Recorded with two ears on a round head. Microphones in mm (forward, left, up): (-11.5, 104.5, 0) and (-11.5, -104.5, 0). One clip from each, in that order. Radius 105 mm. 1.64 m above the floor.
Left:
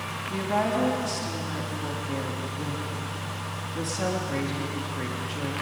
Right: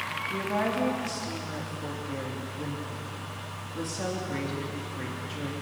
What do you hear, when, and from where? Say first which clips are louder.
0.3 s a woman speaking: left 4 dB; 10° left (ahead or behind), 3 m